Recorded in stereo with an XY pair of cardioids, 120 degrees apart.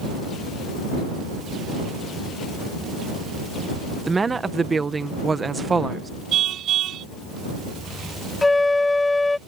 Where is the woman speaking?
25° right.